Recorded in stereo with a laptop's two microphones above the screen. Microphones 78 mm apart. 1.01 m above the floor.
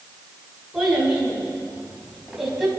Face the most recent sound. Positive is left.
turn(degrees=-5)  # may be behind; listen again after turning